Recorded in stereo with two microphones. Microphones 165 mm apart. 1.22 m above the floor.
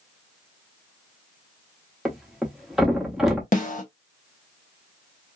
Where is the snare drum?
50° left (ahead or behind), 0.7 m.